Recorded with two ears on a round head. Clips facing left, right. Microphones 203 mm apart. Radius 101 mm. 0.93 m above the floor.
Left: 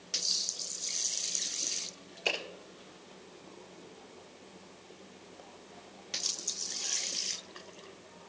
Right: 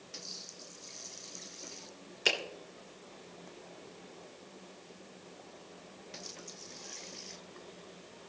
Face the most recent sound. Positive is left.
turn(degrees=-30)  # may be behind; listen again after turning